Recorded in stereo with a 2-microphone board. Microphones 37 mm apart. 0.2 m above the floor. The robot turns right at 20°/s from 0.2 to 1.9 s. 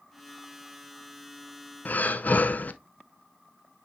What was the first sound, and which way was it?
Breathing, 45° left (ahead or behind).